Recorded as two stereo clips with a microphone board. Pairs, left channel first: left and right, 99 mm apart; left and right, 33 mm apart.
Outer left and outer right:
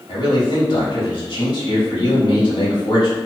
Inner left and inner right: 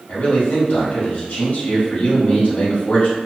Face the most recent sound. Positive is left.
turn(degrees=50)  # may be behind; listen again after turning